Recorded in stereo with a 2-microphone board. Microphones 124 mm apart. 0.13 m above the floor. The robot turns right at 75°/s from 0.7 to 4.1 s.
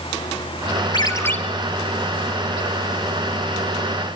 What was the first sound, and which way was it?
A ringtone, 135° left.